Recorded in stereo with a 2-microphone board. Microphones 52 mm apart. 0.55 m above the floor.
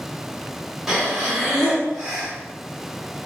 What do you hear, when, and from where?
0.9 s breathing: 5° right (ahead or behind), 0.7 m